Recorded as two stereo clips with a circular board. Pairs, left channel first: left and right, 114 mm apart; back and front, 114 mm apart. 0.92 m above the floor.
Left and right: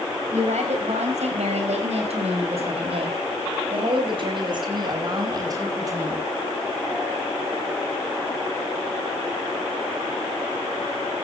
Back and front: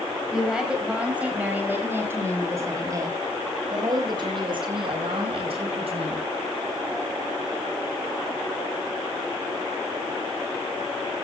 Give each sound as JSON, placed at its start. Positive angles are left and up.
{"t": 0.3, "sound": "a woman speaking", "azimuth_deg": -85, "distance_m": 6.0}